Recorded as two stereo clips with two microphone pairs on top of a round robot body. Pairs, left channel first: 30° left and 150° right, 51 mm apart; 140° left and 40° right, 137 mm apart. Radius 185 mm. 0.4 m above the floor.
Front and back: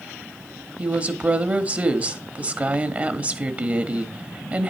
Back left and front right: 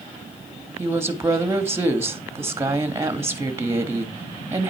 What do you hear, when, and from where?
0.8 s a woman speaking: 105° right, 1.2 m